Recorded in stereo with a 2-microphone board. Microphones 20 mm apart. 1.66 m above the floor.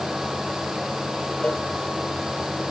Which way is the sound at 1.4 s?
80° left.